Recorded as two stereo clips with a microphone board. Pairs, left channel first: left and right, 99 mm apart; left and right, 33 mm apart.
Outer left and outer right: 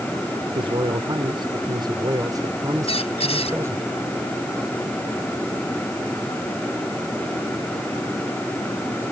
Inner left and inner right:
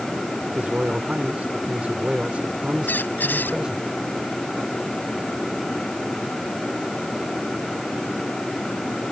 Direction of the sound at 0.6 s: 60° right (ahead or behind).